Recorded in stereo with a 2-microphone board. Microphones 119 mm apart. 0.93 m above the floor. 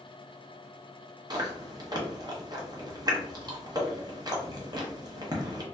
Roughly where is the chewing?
Right.